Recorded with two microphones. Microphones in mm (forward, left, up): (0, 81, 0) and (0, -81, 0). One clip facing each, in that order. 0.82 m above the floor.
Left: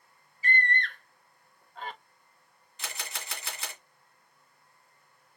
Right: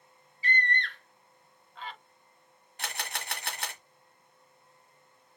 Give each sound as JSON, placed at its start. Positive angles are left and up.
{"t": 0.4, "sound": "a scream", "side_deg": 50, "distance_m": 1.0}
{"t": 2.8, "sound": "a camera shutter", "side_deg": -70, "distance_m": 1.6}